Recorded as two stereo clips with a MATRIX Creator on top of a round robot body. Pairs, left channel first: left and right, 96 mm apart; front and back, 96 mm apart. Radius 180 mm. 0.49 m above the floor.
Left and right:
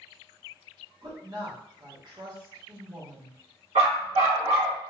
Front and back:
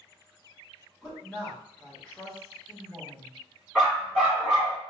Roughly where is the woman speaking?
Right.